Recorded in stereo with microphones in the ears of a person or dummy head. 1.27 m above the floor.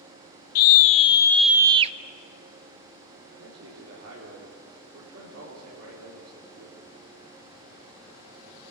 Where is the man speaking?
80° right, 4 m.